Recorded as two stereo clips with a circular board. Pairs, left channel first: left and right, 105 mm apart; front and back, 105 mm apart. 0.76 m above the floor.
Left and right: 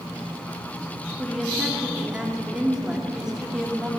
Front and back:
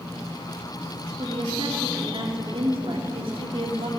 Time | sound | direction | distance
1.2 | a woman speaking | 170° right | 2 m